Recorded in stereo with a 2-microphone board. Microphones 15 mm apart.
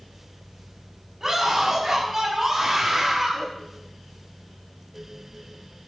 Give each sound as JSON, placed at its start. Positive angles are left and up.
{"t": 1.2, "sound": "a scream", "side_deg": -25, "distance_m": 5.5}